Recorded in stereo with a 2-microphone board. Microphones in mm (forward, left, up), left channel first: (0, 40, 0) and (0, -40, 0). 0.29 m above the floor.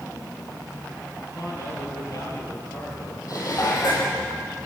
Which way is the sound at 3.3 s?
50° left (ahead or behind).